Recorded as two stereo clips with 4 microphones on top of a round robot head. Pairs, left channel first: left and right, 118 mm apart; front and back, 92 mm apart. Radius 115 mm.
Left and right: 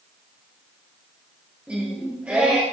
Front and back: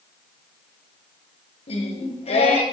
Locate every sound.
1.7 s singing: 10° right, 2.5 m